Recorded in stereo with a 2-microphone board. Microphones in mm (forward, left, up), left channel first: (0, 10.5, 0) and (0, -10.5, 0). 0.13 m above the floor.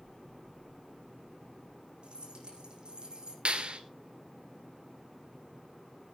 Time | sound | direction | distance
2.0 | keys jangling | 50° right (ahead or behind) | 6 m
3.5 | a clap | 55° right (ahead or behind) | 1.8 m